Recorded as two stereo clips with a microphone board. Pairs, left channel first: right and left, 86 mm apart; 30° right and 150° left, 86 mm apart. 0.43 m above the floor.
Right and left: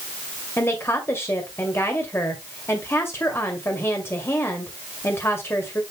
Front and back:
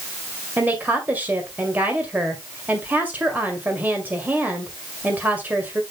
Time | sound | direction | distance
0.6 | a woman speaking | 145° right | 1.9 m